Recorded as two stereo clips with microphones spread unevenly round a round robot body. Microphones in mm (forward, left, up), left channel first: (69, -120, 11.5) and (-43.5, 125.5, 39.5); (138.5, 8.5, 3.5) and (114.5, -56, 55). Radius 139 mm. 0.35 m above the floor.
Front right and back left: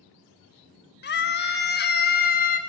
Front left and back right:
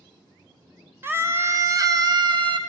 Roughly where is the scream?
Ahead right.